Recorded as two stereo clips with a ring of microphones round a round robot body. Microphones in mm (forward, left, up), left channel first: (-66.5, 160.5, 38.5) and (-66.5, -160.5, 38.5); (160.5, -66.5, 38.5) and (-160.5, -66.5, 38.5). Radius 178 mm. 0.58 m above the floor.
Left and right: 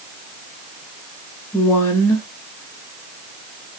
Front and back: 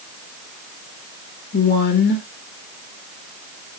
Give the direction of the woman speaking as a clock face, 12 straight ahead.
12 o'clock.